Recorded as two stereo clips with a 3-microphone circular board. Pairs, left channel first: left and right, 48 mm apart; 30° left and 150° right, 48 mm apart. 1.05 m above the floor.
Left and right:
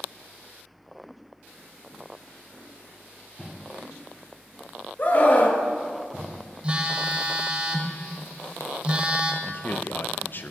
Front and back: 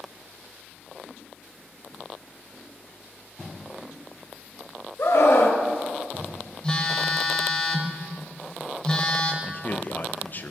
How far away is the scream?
About 1.0 m.